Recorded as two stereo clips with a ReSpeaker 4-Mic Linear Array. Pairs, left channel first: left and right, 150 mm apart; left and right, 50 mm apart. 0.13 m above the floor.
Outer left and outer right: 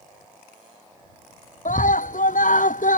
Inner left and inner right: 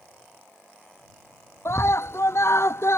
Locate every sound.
1.6 s a scream: 60° left (ahead or behind)